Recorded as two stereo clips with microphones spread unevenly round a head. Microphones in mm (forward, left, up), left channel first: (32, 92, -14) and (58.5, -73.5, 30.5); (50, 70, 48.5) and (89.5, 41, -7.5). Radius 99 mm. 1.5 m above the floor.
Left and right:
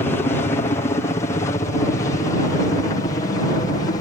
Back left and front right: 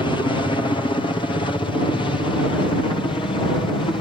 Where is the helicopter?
140° left; by 4.0 s 150° left.